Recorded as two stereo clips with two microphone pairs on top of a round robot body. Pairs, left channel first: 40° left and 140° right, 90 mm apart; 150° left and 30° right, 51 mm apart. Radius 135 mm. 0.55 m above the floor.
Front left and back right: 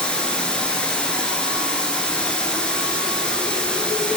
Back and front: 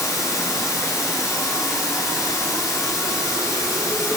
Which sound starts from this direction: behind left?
Running water, at 0.0 s.